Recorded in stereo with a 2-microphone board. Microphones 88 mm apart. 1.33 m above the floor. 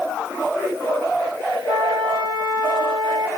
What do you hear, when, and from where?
1.7 s a flute: 55° right (ahead or behind), 2.5 m